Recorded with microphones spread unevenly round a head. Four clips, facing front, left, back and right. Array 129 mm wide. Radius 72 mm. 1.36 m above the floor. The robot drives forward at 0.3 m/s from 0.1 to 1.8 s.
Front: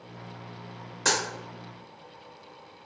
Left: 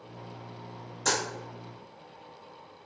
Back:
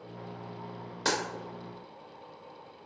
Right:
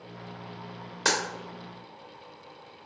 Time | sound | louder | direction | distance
1.1 | a dropped coin | right 2 dB, front 2 dB | 120° right | 0.6 m